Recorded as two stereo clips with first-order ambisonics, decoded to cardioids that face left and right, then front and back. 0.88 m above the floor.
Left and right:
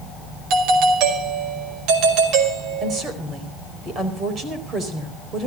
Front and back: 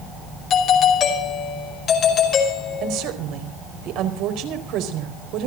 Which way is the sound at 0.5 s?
60° right.